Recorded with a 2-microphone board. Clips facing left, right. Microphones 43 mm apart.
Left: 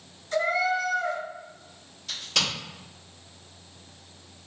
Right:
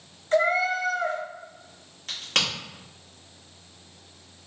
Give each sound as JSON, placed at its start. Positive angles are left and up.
{"t": 0.3, "sound": "a cat meowing", "side_deg": -50, "distance_m": 1.4}
{"t": 2.1, "sound": "a crack", "side_deg": -55, "distance_m": 1.7}